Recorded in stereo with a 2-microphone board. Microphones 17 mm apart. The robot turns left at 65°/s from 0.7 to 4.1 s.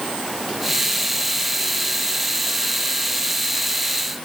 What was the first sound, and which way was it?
Only background noise.